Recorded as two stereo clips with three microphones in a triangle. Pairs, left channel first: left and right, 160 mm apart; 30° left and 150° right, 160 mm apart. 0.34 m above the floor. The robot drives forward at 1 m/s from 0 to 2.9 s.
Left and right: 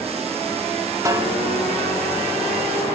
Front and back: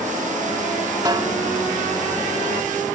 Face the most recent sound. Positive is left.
turn(degrees=-165)